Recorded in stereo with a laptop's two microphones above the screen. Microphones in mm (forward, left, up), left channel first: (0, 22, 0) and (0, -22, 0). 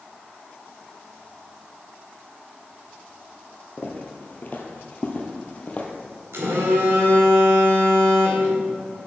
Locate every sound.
3.8 s footsteps: 40° left (ahead or behind), 1.2 m; by 5.9 s 30° left (ahead or behind), 1.4 m
6.3 s a phone buzzing: 85° right, 1.5 m